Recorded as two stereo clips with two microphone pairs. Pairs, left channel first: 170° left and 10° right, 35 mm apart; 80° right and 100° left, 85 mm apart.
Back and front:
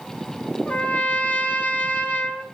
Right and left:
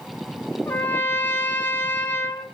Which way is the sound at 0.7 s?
150° right.